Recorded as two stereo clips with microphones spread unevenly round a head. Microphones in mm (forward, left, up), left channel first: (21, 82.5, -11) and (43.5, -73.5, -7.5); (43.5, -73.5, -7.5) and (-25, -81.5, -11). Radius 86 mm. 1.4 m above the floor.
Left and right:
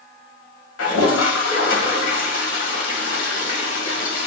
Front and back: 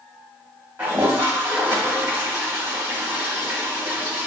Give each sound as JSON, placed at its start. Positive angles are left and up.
{"t": 0.8, "sound": "a toilet flushing", "azimuth_deg": 110, "distance_m": 1.7}